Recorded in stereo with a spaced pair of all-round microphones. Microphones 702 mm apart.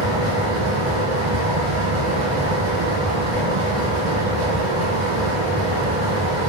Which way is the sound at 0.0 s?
45° right (ahead or behind).